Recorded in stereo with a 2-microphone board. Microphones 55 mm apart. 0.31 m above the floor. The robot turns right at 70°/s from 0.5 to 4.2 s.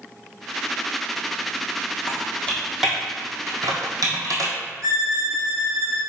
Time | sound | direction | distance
2.1 | typing on a keyboard | 45° left (ahead or behind) | 1.9 m
4.8 | a violin | 75° right (ahead or behind) | 3 m